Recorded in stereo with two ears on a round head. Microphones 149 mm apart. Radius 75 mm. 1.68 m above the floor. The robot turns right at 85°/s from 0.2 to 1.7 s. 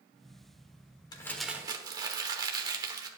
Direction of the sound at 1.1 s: 155° left.